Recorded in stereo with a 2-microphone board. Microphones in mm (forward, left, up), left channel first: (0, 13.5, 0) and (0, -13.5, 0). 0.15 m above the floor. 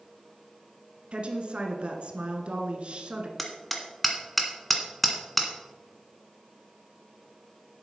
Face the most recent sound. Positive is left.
turn(degrees=0)  # may be behind; listen again after turning